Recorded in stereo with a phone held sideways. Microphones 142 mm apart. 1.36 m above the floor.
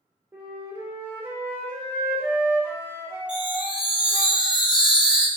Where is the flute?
15° right (ahead or behind), 0.7 m.